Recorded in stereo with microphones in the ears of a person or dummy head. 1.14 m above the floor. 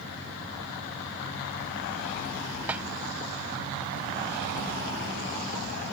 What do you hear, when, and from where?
2.7 s a snare drum: 10° right (ahead or behind)